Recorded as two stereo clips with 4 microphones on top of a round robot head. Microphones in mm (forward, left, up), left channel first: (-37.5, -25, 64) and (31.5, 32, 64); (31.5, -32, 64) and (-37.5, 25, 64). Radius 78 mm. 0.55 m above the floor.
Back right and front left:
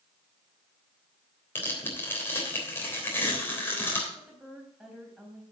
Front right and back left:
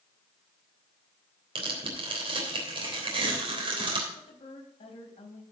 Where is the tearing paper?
155° left, 3.5 m.